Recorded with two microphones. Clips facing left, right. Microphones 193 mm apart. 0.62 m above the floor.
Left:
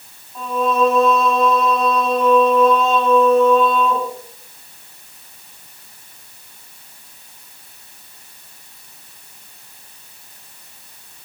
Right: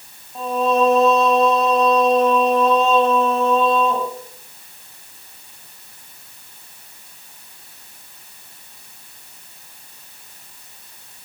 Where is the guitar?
I don't hear a guitar.